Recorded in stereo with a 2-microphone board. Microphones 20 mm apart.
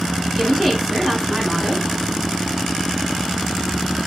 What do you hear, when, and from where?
0.4 s a woman speaking: 20° right (ahead or behind), 1.4 m